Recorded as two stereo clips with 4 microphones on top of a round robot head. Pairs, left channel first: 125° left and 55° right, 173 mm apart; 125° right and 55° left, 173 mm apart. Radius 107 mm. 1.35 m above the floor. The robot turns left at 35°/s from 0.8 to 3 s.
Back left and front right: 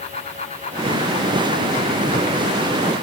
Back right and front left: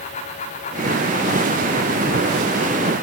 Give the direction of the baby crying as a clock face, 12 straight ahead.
I don't hear a baby crying.